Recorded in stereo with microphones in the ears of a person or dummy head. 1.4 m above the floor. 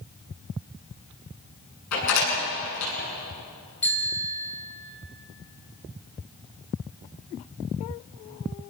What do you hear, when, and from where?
1.9 s a door slam: 85° left, 9.5 m
3.8 s a bicycle bell: 10° left (ahead or behind), 5.5 m